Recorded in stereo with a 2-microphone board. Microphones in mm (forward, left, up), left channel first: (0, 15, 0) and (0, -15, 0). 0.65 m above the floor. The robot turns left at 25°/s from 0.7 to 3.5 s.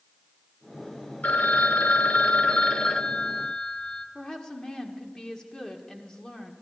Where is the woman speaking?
25° left (ahead or behind), 1.6 m.